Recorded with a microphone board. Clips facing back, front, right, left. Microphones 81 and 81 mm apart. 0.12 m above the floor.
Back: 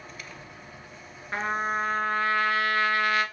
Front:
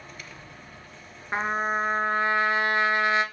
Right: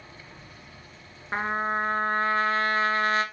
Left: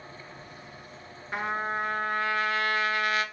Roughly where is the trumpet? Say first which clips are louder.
Front 2 dB, right 3 dB; ahead right.